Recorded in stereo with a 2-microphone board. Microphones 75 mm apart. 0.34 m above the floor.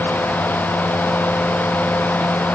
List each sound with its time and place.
Only background noise.